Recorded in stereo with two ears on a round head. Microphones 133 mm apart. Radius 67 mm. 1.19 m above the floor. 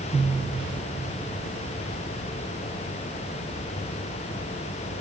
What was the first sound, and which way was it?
Only background noise.